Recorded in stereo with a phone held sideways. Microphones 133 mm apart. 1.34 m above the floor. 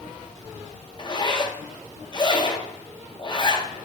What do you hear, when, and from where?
1.0 s a zipper: 35° left (ahead or behind), 0.6 m